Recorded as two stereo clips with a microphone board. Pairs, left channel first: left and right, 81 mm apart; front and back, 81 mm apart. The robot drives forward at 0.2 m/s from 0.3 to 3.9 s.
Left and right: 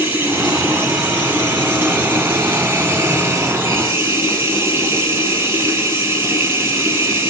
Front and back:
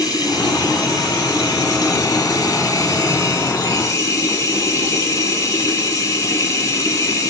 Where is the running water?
30° right, 2.5 m; by 7.3 s 45° right, 1.9 m.